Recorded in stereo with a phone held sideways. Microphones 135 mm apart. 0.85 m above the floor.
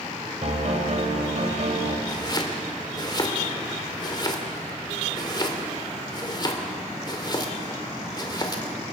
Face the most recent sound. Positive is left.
turn(degrees=35)  # may be behind; listen again after turning